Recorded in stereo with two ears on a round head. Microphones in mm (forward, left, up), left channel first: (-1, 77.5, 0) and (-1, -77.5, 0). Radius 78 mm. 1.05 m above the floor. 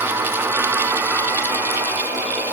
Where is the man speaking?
No man speaking in this recording.